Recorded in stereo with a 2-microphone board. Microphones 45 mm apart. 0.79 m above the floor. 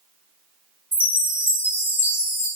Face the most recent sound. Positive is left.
turn(degrees=55)  # may be behind; listen again after turning